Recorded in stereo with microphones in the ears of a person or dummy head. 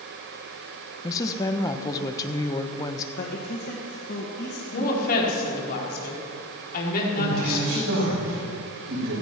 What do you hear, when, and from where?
1.0 s a woman speaking: 15° left (ahead or behind), 1.2 m
3.2 s a man speaking: 55° left (ahead or behind), 1.9 m
4.7 s a woman speaking: 50° left (ahead or behind), 4 m
7.2 s a man speaking: 85° right, 6 m